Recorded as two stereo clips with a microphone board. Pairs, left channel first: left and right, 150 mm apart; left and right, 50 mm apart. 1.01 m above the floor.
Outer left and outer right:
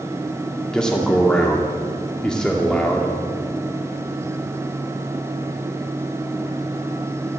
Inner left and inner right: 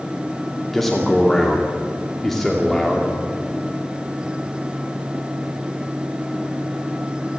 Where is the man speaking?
5° left (ahead or behind), 2 m.